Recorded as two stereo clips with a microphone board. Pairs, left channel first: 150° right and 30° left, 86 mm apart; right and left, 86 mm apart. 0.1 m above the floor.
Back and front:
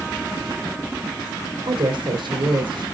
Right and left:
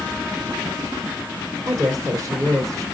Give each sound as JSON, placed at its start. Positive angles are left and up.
{"t": 1.7, "sound": "a woman speaking", "azimuth_deg": 40, "distance_m": 4.0}